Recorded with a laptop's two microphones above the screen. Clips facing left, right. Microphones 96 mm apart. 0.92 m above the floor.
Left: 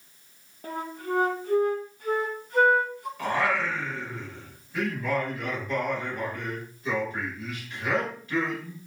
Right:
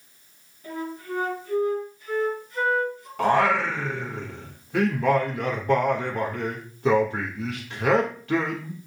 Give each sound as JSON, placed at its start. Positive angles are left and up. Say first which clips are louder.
{"t": 0.6, "sound": "a flute", "louder": "even", "side_deg": 55, "distance_m": 1.8}
{"t": 3.2, "sound": "singing", "louder": "right 6 dB", "side_deg": -70, "distance_m": 1.6}